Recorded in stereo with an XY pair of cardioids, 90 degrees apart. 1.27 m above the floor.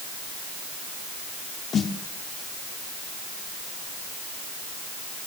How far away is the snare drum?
About 2 m.